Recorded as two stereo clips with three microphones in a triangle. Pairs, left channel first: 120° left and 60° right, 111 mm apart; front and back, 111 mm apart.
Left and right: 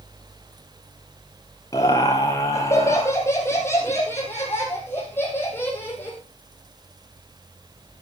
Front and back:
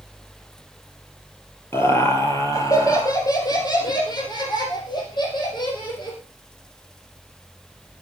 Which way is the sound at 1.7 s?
65° left.